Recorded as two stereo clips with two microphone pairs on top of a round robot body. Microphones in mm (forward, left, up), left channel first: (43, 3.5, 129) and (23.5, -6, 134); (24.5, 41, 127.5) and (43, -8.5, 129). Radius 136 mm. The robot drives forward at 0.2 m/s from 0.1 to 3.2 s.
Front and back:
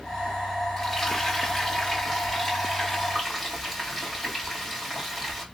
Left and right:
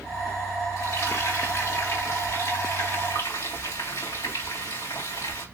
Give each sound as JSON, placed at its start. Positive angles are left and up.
{"t": 0.8, "sound": "frying", "azimuth_deg": 110, "distance_m": 1.9}